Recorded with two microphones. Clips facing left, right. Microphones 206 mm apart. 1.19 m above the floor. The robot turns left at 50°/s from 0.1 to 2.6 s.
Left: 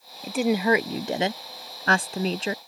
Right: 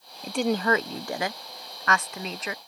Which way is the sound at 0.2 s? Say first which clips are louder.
Left 3 dB; centre (ahead or behind).